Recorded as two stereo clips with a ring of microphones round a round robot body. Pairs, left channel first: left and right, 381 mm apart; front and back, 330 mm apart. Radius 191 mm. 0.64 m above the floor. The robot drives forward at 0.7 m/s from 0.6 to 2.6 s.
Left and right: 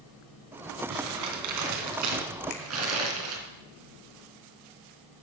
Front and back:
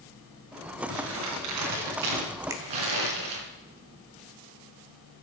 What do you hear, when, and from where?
0.9 s crumpling: 125° right, 2.5 m; by 3.4 s 140° right, 3.5 m
2.5 s a finger snap: 100° left, 2 m